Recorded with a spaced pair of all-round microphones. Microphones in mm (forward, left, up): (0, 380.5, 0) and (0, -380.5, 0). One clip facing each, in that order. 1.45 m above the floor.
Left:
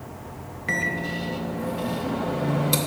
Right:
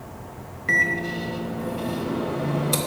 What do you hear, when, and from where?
0.7 s a microwave: 25° left (ahead or behind), 1.5 m